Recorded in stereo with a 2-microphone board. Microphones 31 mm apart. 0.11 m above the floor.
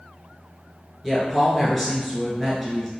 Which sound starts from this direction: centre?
A woman speaking, at 1.0 s.